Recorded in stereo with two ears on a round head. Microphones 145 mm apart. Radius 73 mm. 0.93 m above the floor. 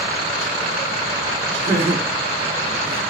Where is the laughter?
40° right (ahead or behind), 1.1 m; by 3.0 s 15° right (ahead or behind), 0.9 m.